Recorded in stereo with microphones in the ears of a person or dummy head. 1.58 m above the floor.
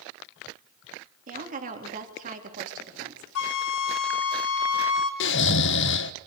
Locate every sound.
1.3 s a woman speaking: 45° right (ahead or behind), 3.5 m
3.4 s a flute: 90° left, 1.7 m
5.2 s snoring: 70° left (ahead or behind), 0.6 m